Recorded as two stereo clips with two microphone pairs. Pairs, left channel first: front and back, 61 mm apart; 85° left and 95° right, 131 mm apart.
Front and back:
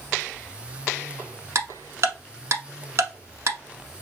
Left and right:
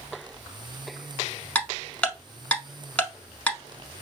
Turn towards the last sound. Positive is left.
turn(degrees=160)